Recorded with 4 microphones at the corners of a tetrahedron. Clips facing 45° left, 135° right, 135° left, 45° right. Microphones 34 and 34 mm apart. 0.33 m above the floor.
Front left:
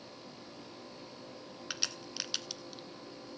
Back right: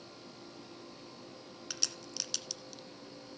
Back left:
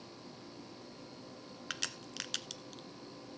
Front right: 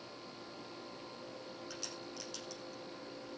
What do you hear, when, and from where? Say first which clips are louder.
1.7 s a crack: front left 2 dB, back left 4 dB; 115° left, 0.9 m